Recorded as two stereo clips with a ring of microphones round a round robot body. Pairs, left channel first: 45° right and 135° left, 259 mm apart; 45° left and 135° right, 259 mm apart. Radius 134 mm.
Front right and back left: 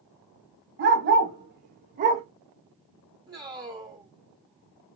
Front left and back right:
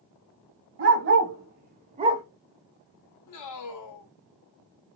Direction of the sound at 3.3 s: 60° left.